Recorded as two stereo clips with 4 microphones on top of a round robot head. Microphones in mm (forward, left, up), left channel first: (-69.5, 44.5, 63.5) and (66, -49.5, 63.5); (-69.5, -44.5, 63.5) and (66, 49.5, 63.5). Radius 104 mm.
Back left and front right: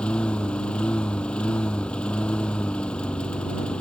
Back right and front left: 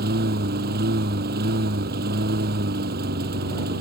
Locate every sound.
0.0 s a lawn mower: 60° left